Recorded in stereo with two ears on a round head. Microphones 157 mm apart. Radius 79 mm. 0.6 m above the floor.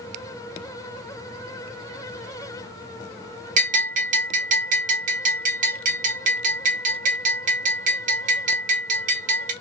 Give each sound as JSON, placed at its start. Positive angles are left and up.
{"t": 3.6, "sound": "a bell", "side_deg": -45, "distance_m": 0.8}